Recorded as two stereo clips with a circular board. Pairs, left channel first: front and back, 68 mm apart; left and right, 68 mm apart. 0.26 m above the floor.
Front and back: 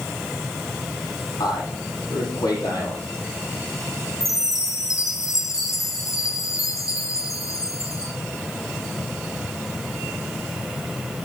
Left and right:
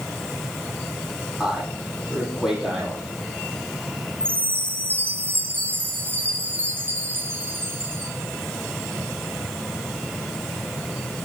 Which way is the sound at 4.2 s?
35° right.